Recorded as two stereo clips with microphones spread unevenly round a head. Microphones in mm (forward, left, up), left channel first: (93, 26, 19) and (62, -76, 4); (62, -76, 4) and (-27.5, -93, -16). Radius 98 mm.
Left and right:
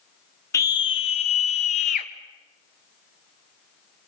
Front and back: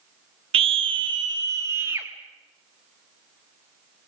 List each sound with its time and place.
0.5 s a scream: 140° left, 0.9 m; by 2.1 s 110° left, 1.8 m